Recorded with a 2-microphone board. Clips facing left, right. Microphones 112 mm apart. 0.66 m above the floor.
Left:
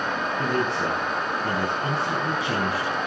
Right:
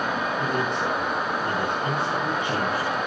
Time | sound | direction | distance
0.4 | a man speaking | 85° left | 5.5 m